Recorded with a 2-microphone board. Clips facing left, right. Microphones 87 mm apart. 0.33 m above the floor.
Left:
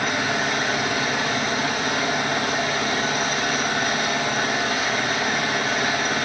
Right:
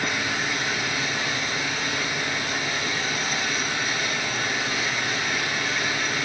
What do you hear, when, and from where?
0.0 s an engine running: 70° left (ahead or behind), 5.5 m